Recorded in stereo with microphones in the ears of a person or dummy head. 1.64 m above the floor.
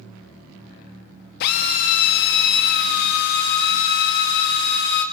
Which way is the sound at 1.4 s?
50° left (ahead or behind).